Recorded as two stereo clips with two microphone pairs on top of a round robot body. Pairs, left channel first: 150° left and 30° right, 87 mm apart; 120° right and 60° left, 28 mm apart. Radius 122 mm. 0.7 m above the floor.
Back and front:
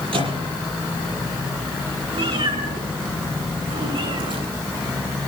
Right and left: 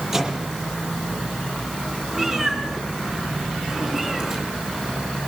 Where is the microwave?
10° right, 7.5 m.